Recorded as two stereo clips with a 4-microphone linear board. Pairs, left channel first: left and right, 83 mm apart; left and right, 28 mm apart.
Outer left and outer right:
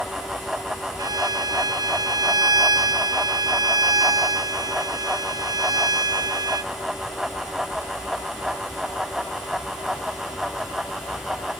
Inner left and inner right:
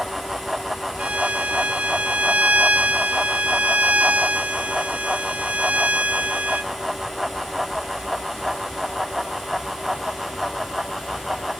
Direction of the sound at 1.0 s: 50° right (ahead or behind).